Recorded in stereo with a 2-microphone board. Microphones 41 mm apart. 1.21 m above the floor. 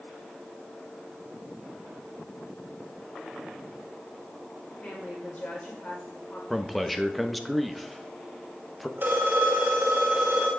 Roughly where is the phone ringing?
Right.